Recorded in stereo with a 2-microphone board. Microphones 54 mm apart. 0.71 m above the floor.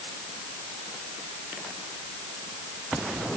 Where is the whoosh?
No whoosh in this recording.